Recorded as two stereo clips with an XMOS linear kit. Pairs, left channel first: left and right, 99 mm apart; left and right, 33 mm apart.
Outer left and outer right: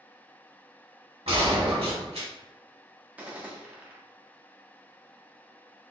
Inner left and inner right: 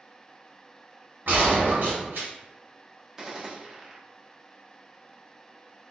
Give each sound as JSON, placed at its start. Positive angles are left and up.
{"t": 1.3, "sound": "a gunshot", "side_deg": -80, "distance_m": 1.1}
{"t": 3.2, "sound": "a gunshot", "side_deg": -15, "distance_m": 0.5}